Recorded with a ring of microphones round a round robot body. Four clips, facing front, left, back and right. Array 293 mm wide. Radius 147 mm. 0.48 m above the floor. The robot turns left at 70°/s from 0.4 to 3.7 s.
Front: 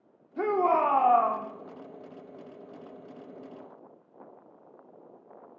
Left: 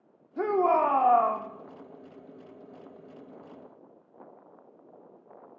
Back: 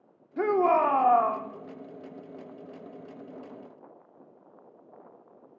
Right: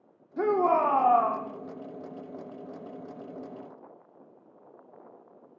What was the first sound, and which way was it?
A shout, 165° right.